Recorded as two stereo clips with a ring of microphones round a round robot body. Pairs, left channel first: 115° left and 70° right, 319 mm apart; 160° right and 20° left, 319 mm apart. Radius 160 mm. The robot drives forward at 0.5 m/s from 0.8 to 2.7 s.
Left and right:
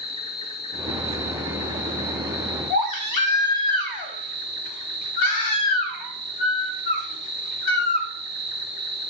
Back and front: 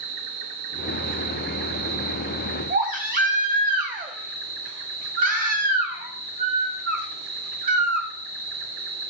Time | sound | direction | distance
0.0 | an insect | 35° left | 4 m
2.7 | a baby crying | 85° left | 1.9 m